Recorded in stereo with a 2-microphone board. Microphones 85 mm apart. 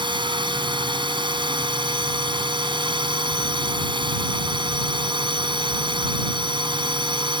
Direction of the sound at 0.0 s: 65° right (ahead or behind).